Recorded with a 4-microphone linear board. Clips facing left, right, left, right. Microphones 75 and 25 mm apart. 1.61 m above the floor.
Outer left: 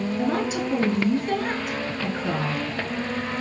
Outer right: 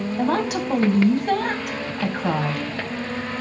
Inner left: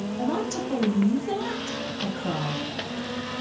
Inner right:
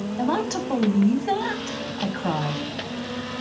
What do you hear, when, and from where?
0.2 s a woman speaking: 60° right (ahead or behind), 1.7 m